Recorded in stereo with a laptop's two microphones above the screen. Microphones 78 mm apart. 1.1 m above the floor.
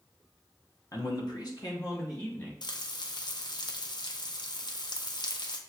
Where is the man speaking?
45° left (ahead or behind), 0.8 m; by 2.5 s 40° left (ahead or behind), 2.5 m.